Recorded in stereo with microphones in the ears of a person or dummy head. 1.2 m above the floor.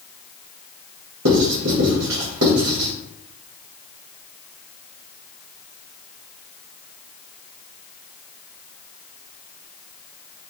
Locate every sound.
1.2 s writing: 70° right (ahead or behind), 2 m